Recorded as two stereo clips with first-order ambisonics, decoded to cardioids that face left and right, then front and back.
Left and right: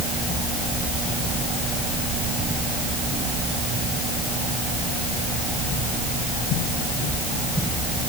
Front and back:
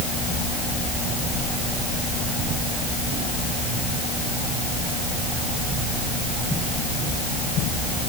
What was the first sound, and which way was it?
Only background noise.